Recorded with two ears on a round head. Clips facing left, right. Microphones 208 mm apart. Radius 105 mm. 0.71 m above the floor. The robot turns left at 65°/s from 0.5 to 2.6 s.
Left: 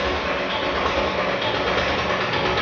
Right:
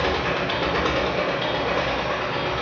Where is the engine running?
120° right, 0.7 m; by 2.6 s 105° left, 0.7 m.